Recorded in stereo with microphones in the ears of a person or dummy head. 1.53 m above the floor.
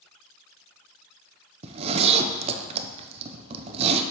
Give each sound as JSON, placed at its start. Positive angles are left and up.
{"t": 1.6, "sound": "a zipper", "side_deg": -35, "distance_m": 0.6}